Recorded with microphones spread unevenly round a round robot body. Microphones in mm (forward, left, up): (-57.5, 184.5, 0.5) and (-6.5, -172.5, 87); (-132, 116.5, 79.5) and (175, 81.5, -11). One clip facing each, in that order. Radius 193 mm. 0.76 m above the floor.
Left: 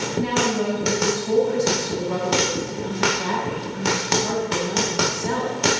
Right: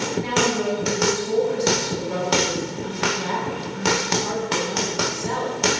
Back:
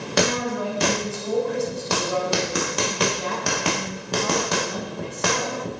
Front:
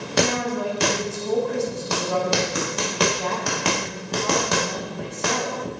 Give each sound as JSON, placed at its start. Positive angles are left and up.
{"t": 0.2, "sound": "a woman speaking", "azimuth_deg": 90, "distance_m": 6.5}